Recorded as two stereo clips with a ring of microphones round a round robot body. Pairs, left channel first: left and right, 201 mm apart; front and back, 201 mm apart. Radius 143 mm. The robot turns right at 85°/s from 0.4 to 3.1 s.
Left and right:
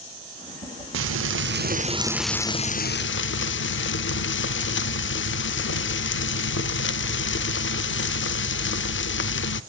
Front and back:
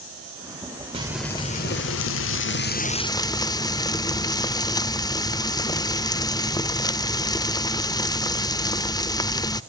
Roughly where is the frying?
Right.